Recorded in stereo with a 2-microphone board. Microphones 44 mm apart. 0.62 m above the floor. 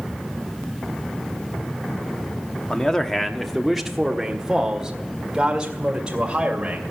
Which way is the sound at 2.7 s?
15° left (ahead or behind).